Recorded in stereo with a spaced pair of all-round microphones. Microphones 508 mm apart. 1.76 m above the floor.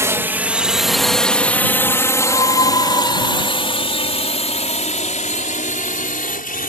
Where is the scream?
50° left (ahead or behind).